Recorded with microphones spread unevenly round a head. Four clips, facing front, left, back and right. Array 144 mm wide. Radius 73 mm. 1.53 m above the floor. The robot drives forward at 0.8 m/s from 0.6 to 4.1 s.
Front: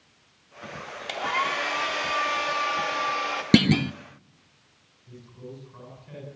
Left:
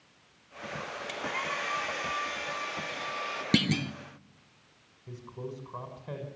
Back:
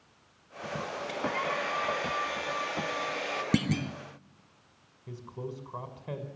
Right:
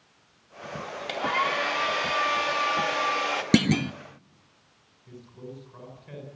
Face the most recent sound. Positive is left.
turn(degrees=160)